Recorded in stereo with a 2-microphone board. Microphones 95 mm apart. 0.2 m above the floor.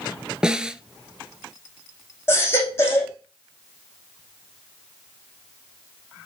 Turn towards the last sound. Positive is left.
turn(degrees=25)  # may be behind; listen again after turning